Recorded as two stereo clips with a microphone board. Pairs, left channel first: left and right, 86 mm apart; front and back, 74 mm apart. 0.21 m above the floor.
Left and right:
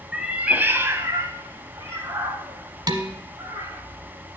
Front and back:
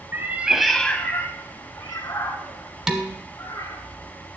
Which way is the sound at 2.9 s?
100° right.